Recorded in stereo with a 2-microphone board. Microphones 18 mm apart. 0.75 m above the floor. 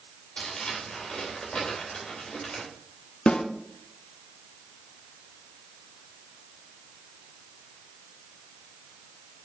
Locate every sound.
0.4 s crumpling: 60° left (ahead or behind), 4 m
3.3 s a snare drum: 75° left (ahead or behind), 0.9 m